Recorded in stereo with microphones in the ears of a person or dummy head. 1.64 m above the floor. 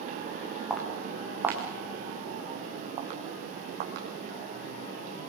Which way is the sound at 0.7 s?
Centre (ahead or behind).